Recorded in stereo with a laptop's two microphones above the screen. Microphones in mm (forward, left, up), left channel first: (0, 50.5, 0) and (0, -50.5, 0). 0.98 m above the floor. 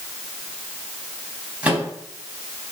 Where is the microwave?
15° right (ahead or behind), 4.5 m.